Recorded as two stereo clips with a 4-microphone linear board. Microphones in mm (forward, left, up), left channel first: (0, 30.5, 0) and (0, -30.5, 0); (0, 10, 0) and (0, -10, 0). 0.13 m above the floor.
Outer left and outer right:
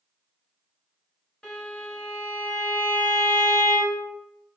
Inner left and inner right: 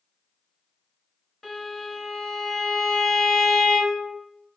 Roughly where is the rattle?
No rattle in this recording.